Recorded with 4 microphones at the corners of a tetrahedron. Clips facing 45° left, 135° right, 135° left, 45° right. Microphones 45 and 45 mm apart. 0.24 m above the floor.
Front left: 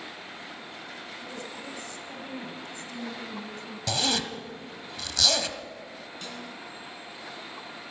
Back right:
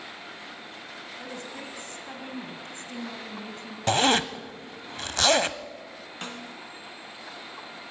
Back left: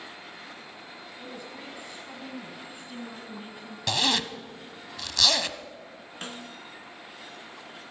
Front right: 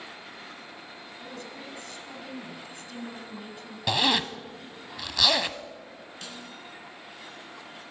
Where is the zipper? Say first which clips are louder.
Back right 7 dB, front right 2 dB; 120° right, 0.6 m.